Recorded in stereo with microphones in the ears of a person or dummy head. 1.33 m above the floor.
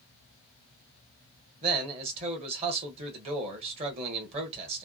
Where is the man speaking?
30° right (ahead or behind), 1.5 m.